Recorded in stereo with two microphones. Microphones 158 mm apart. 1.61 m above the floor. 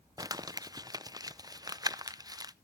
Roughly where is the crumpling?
Right.